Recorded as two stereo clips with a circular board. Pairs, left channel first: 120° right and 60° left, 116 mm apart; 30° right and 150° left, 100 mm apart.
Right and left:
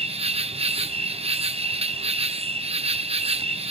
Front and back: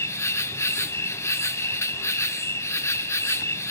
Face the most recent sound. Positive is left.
turn(degrees=30)